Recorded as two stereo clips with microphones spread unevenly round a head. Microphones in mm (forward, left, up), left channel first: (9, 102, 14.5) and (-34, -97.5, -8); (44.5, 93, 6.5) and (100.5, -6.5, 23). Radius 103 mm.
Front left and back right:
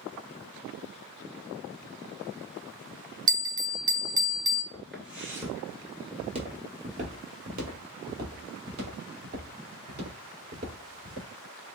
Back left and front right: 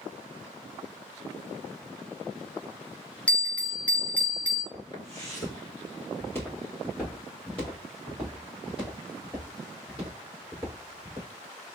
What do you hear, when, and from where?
3.3 s a bell: 155° right, 0.7 m
4.7 s footsteps: 150° left, 1.9 m; by 11.3 s 140° right, 5.5 m